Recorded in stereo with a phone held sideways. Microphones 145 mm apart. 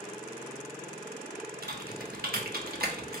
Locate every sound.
1.6 s typing on a keyboard: 80° right, 0.9 m